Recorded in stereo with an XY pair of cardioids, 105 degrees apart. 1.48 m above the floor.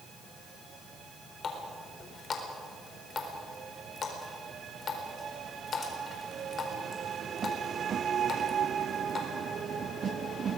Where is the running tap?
45° left, 4 m.